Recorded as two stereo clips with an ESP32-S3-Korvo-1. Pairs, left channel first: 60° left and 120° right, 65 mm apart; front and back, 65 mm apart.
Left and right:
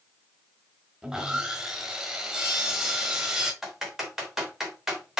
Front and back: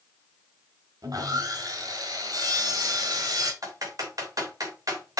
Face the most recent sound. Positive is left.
turn(degrees=155)